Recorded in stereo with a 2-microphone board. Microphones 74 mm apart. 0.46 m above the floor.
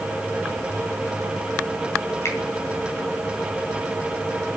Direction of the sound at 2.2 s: 40° left (ahead or behind).